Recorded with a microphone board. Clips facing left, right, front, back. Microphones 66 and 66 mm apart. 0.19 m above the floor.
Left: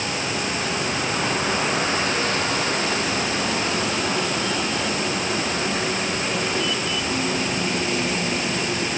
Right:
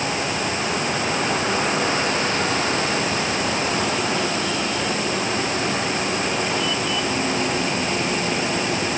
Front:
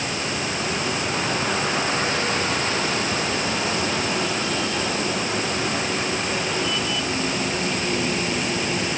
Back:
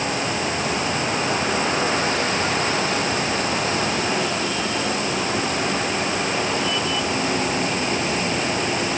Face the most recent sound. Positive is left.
No sound to turn to.